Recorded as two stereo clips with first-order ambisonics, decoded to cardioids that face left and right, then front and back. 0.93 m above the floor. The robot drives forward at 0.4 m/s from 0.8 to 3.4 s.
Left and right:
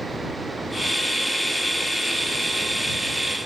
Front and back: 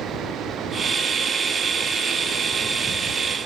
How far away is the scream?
I don't hear a scream.